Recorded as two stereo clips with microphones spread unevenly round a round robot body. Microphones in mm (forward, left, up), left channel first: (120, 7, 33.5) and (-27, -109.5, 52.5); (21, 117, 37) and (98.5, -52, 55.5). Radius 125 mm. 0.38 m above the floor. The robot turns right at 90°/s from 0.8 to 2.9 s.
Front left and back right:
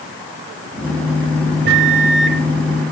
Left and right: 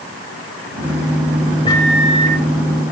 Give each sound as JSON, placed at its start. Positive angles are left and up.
{"t": 1.6, "sound": "a microwave", "azimuth_deg": 180, "distance_m": 1.4}